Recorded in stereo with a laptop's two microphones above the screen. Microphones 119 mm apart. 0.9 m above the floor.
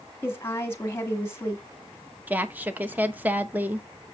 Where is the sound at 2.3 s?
15° right (ahead or behind), 1.0 m.